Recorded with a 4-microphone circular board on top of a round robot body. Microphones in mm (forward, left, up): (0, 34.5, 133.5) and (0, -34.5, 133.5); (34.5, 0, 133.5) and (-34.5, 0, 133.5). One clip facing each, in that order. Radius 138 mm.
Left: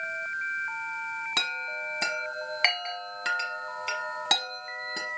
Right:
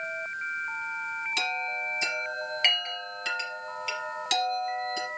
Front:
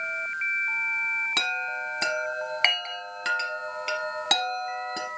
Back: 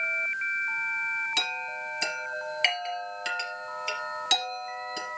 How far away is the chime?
About 1.6 m.